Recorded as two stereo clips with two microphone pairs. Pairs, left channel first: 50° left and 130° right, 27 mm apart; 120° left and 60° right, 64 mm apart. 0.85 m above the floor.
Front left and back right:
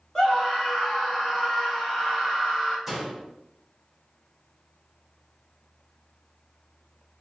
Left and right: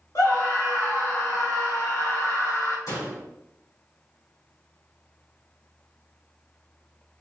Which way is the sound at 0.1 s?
120° left.